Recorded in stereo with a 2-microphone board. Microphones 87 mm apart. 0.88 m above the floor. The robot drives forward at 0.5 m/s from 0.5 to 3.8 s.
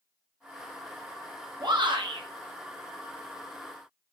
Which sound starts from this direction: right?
A shout, at 1.6 s.